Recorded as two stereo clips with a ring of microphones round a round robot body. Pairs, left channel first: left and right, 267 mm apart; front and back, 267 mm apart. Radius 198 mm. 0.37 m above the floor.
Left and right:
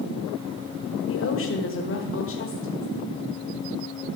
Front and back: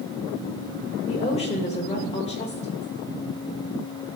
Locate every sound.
1.1 s a woman speaking: 65° left, 1.4 m